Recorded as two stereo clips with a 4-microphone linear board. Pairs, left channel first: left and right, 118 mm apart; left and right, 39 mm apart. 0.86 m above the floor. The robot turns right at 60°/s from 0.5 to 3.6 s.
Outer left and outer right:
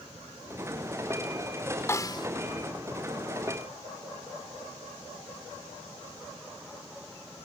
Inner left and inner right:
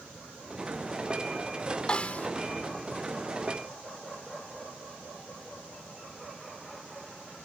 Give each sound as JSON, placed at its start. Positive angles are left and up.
{"t": 1.9, "sound": "a snare drum", "side_deg": 25}